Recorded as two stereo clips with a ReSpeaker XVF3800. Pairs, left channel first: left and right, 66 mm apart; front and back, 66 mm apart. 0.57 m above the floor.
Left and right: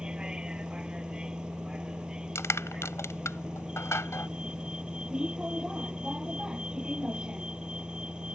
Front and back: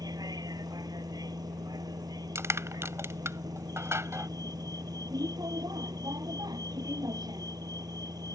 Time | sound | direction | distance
0.0 | a vehicle | 165° right | ?
2.4 | crushing | 135° left | ?